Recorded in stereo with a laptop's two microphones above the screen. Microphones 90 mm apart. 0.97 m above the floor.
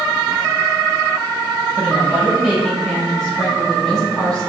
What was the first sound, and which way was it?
A woman speaking, 15° right (ahead or behind).